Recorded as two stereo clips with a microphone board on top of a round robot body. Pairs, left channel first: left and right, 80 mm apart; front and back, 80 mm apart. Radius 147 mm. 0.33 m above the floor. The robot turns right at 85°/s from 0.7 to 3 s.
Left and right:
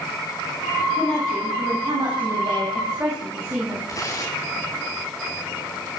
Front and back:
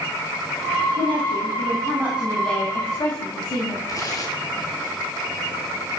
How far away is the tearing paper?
About 5.5 m.